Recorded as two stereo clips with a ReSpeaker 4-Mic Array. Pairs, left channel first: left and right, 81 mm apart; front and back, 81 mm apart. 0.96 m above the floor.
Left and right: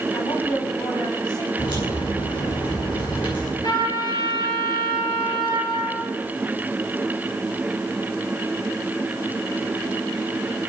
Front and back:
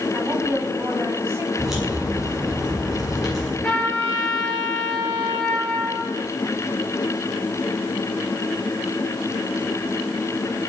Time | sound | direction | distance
0.1 | a woman speaking | 115° left | 7 m
1.6 | a crack | 95° left | 9 m
3.6 | a trumpet | 75° left | 9 m